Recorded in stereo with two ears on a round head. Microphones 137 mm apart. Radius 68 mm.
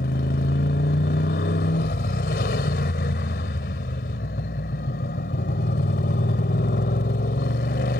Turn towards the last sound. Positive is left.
turn(degrees=70)  # may be behind; listen again after turning